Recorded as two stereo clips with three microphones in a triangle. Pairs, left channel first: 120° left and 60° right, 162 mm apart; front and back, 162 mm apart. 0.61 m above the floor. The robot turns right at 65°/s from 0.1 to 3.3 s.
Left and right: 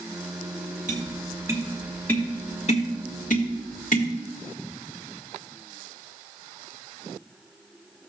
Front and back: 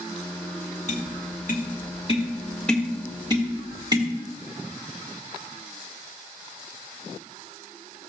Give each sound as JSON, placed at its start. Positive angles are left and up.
{"t": 0.9, "sound": "tapping", "azimuth_deg": -35, "distance_m": 1.6}